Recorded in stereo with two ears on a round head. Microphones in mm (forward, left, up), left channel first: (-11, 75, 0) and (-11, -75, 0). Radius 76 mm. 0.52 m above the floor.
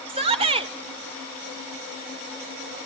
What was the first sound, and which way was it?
A shout, 35° right (ahead or behind).